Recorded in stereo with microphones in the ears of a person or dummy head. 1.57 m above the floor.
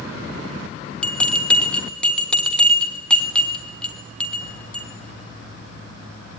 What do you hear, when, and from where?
1.0 s a bell: 5° left (ahead or behind), 0.8 m